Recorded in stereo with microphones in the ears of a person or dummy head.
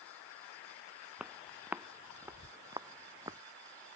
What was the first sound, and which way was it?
Footsteps, 10° right (ahead or behind).